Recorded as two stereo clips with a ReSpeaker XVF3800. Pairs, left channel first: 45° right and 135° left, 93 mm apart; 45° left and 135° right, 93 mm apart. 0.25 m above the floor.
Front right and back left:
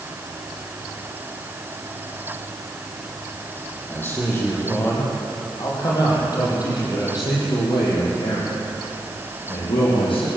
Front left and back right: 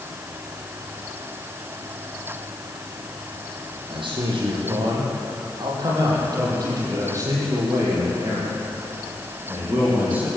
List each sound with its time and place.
3.9 s a man speaking: 110° right, 9 m; by 10.3 s 60° right, 11.5 m